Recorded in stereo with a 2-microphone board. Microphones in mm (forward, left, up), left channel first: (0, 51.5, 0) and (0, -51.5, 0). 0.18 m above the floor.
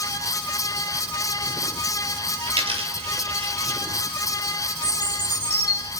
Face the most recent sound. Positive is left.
turn(degrees=-15)  # may be behind; listen again after turning